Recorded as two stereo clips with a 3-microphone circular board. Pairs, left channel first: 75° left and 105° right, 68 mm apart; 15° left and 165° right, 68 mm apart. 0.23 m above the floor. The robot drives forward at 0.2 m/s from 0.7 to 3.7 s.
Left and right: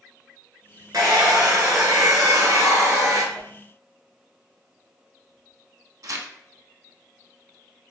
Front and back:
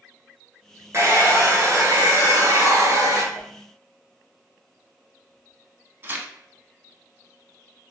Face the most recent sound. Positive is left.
turn(degrees=-115)